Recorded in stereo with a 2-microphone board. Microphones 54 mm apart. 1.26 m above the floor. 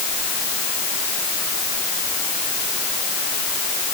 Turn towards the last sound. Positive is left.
No sound to turn to.